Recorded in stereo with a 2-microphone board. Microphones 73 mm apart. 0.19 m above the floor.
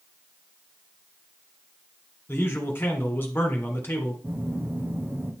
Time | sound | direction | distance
2.3 | a man speaking | 30° left (ahead or behind) | 1.8 m
4.2 | a phone buzzing | 30° right (ahead or behind) | 1.1 m